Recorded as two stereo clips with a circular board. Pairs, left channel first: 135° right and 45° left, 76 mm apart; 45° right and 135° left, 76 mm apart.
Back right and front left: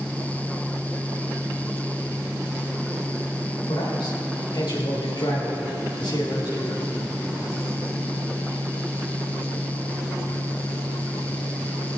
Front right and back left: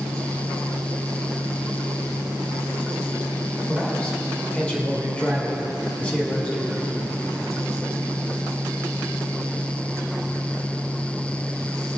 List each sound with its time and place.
3.7 s a man speaking: 120° right, 3.5 m